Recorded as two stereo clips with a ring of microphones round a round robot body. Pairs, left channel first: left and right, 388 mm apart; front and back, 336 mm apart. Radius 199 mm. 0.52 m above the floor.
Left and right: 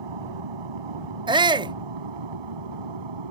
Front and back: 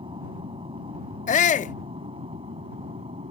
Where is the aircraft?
105° right.